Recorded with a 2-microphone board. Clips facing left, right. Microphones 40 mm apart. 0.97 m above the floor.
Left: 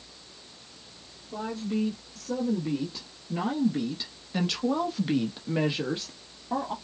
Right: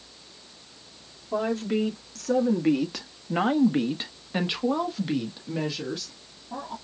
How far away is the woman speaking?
About 2 m.